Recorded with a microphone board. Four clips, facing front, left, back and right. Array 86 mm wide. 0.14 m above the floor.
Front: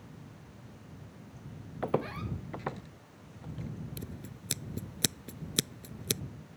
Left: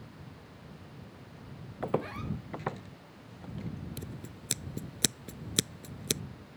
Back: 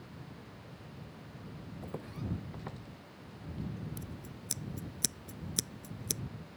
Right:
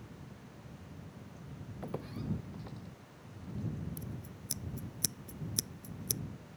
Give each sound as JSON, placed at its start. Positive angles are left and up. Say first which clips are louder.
{"t": 1.8, "sound": "footsteps", "louder": "left 8 dB, front 11 dB", "azimuth_deg": 35}
{"t": 4.0, "sound": "scissors", "louder": "left 2 dB, front 1 dB", "azimuth_deg": 55}